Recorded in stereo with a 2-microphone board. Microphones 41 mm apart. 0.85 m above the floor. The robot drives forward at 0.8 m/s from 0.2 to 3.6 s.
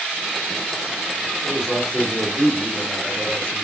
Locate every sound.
1.4 s a man speaking: 5° right (ahead or behind), 1.4 m; by 3.6 s centre (ahead or behind), 3 m